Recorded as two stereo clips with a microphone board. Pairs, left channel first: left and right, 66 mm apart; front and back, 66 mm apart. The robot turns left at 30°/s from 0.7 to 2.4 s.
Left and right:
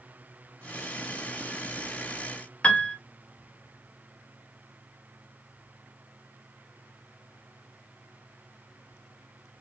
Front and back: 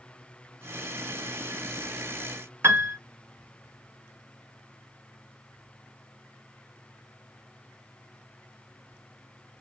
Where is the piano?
155° left, 0.5 m.